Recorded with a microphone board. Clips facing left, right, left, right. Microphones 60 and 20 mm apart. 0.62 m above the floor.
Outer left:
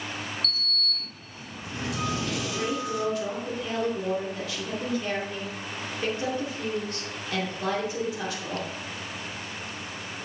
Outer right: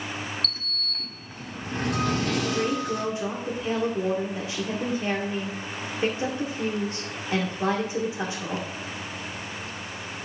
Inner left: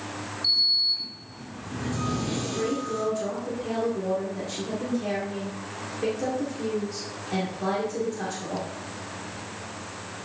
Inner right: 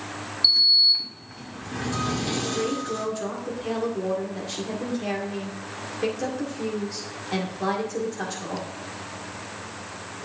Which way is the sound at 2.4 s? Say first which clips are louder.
Outer right 3 dB, inner right 1 dB; 25° right (ahead or behind).